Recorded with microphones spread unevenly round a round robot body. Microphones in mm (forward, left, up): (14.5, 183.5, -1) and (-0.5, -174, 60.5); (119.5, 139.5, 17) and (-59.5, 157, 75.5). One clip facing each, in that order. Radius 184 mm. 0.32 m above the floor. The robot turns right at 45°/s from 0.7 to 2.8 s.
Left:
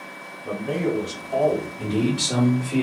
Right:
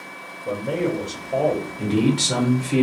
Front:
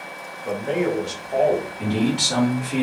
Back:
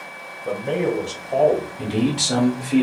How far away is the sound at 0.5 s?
About 1.2 m.